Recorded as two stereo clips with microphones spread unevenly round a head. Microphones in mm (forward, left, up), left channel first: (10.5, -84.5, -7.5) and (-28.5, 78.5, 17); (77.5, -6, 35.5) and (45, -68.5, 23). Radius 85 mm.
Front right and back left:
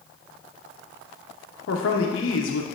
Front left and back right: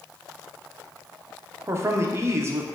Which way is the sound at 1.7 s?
65° right.